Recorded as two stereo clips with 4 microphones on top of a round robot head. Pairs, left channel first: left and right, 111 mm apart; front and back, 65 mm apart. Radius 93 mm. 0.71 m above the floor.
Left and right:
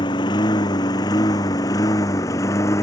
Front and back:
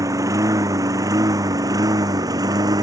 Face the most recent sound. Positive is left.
turn(degrees=160)